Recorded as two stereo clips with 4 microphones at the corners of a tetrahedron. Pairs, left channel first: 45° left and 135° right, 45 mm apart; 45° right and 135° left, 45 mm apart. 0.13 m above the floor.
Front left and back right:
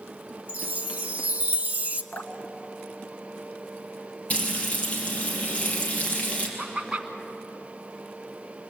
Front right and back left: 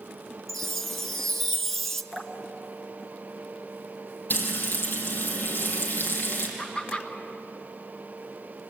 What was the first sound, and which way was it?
A chime, 130° right.